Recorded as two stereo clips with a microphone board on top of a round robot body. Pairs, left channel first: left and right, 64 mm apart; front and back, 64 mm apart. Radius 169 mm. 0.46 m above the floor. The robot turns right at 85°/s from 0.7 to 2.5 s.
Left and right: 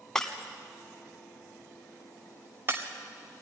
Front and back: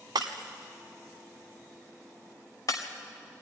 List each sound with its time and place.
0.1 s breaking glass: 170° left, 1.0 m; by 2.9 s 35° right, 1.0 m